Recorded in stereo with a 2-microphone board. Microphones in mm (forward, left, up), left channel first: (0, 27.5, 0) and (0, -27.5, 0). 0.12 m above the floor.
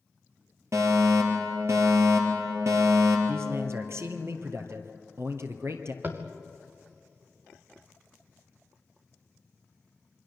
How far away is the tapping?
About 3 m.